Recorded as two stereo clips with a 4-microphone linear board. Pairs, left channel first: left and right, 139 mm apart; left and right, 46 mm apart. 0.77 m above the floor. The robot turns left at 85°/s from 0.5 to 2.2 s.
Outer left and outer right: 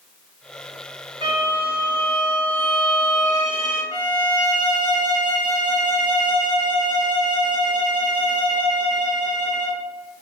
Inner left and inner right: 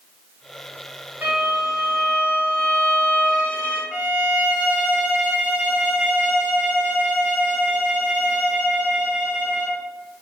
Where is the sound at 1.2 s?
135° right, 1.7 m; by 3.8 s 140° left, 1.7 m.